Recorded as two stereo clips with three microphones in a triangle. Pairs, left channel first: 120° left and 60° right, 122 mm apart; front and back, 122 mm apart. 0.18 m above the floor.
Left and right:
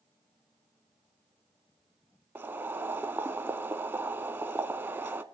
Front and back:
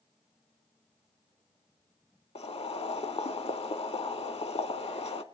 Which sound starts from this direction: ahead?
Boiling, at 2.4 s.